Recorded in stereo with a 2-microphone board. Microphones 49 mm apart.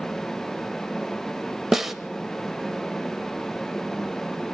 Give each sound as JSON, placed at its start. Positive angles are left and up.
{"t": 1.7, "sound": "a snare drum", "side_deg": -5, "distance_m": 0.7}